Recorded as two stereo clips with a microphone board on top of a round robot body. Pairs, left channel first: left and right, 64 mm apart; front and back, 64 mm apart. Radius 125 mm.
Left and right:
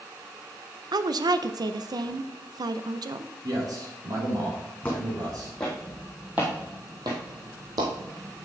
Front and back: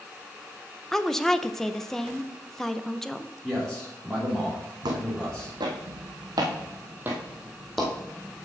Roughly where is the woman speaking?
Right.